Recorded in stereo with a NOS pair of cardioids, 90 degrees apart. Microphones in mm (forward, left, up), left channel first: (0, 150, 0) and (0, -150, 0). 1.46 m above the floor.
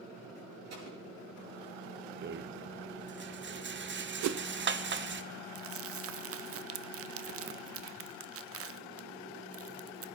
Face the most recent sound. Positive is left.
turn(degrees=-50)